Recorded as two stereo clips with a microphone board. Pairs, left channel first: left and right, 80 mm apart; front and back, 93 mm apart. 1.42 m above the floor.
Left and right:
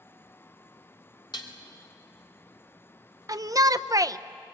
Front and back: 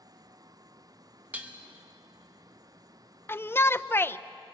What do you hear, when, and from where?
1.3 s dishes clattering: 110° left, 2 m
3.3 s a shout: 60° right, 0.6 m